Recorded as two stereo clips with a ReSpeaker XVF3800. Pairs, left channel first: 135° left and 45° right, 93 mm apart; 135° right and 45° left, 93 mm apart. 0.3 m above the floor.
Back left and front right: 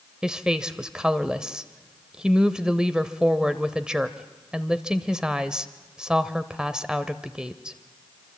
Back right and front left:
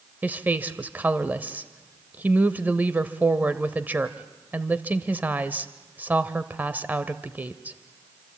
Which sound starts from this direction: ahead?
A woman speaking, at 0.2 s.